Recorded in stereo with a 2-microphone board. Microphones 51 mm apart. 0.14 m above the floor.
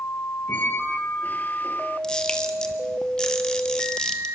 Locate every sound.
0.5 s a squeak: 35° left (ahead or behind), 1.6 m
2.0 s a camera shutter: 15° left (ahead or behind), 1.4 m